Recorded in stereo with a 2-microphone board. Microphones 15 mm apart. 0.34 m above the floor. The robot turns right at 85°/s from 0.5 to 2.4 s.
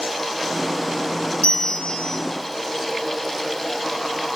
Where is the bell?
60° left, 1.6 m; by 2.2 s 125° left, 1.6 m.